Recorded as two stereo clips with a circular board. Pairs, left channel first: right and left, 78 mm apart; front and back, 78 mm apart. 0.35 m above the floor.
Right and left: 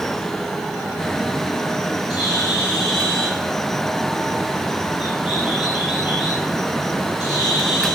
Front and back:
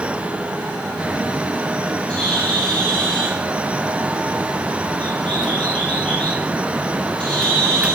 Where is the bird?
75° right, 8 m.